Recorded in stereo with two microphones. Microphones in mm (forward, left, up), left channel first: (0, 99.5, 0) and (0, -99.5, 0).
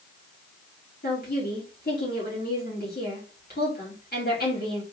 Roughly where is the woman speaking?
Left.